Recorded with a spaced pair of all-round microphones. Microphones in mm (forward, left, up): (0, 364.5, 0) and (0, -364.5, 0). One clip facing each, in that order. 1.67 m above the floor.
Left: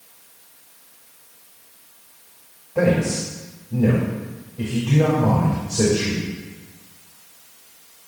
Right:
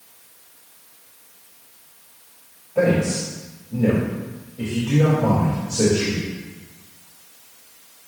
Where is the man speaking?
35° left (ahead or behind), 2.5 m.